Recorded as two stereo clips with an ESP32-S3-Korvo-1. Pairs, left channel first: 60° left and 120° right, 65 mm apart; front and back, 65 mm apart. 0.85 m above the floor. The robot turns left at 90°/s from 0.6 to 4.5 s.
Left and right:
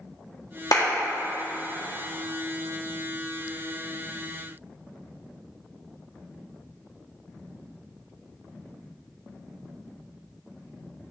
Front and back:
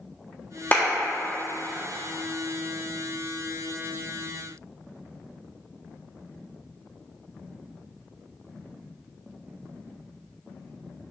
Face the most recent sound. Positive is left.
turn(degrees=75)